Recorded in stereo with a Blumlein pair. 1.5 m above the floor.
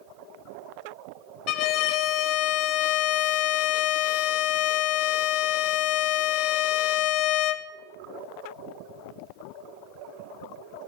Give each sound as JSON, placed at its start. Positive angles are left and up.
{"t": 1.5, "sound": "a violin", "azimuth_deg": 40, "distance_m": 0.6}